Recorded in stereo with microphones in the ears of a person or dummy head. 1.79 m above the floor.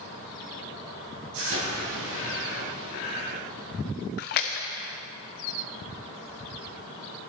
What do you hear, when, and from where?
1.3 s an explosion: 65° right (ahead or behind), 3.5 m
4.2 s a splash: 45° left (ahead or behind), 0.7 m